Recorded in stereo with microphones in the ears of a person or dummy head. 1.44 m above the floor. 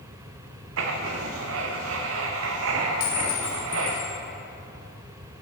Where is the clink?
50° left (ahead or behind), 2.5 m.